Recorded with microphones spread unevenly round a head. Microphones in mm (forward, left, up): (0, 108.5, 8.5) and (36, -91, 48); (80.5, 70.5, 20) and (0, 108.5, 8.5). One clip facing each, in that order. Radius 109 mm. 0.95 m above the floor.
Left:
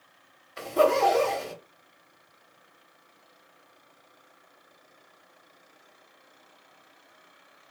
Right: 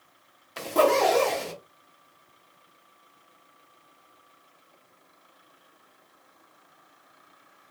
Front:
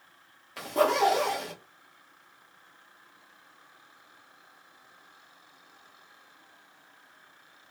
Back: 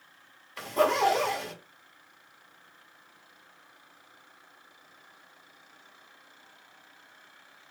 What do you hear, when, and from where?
0.6 s a zipper: 65° right, 1.2 m